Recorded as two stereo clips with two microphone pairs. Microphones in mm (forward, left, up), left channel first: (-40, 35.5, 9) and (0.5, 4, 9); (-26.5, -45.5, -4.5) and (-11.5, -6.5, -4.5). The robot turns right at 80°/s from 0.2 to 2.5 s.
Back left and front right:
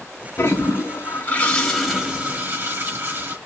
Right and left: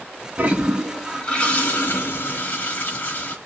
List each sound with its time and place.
0.4 s a toilet flushing: 115° left, 1.1 m; by 3.4 s 75° right, 1.1 m